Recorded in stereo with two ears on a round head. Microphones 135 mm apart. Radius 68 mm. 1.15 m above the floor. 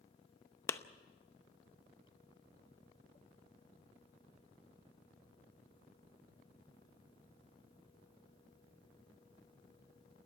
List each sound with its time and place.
0.7 s a clap: 20° left (ahead or behind), 0.8 m